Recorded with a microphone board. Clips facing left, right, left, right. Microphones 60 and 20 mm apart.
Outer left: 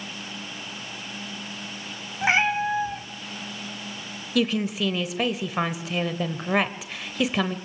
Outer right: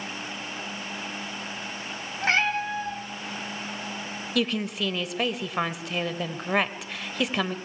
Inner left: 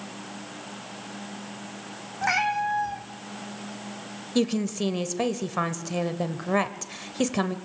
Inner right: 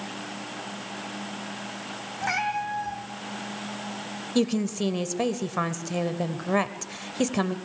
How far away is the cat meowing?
About 1.7 m.